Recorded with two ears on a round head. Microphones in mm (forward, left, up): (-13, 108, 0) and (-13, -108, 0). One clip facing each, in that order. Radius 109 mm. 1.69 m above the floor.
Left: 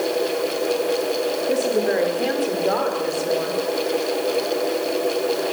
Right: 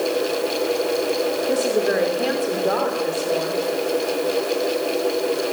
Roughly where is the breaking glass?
I don't hear breaking glass.